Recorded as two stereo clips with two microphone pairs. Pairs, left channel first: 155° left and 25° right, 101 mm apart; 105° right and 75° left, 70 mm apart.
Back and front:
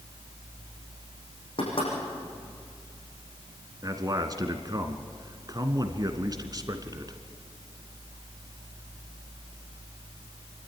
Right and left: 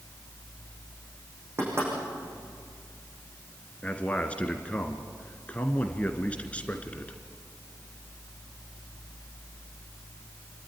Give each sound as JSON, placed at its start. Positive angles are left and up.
{"t": 1.6, "sound": "knocking", "azimuth_deg": 125, "distance_m": 8.0}
{"t": 3.8, "sound": "a man speaking", "azimuth_deg": -40, "distance_m": 1.5}